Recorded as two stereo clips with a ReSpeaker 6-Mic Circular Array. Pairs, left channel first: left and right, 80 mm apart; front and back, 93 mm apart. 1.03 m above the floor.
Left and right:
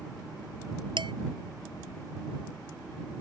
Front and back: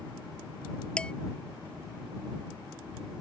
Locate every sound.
1.0 s dishes clattering: 80° right